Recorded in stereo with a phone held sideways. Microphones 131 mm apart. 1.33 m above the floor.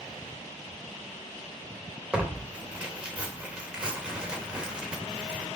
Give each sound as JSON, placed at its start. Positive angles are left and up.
{"t": 2.1, "sound": "tearing paper", "side_deg": -5, "distance_m": 2.5}